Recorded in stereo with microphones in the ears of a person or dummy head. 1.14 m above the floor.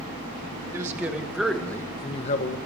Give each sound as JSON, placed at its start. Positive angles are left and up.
{"t": 0.7, "sound": "a man speaking", "side_deg": -15, "distance_m": 2.0}